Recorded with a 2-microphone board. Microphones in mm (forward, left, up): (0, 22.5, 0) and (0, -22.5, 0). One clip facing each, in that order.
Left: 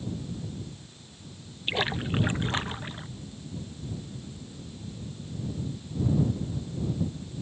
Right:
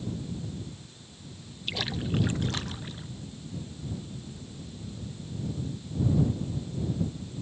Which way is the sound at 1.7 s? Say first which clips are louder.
Left 3 dB; 30° left (ahead or behind).